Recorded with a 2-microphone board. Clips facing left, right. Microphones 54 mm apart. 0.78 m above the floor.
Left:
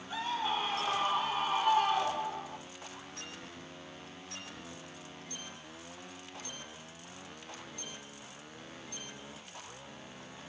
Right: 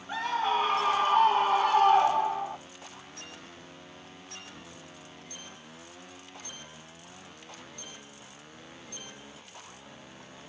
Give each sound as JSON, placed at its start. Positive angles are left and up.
{"t": 0.1, "sound": "a scream", "side_deg": -55, "distance_m": 3.0}